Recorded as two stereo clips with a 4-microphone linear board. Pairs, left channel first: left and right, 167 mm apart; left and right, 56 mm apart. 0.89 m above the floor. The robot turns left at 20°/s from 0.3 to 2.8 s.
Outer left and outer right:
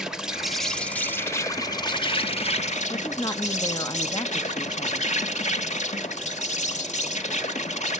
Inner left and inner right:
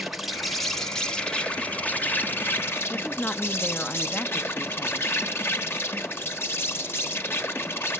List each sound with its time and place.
0.0 s an insect: 175° right, 1.3 m; by 8.0 s 135° left, 1.3 m
2.9 s a woman speaking: 25° left (ahead or behind), 1.1 m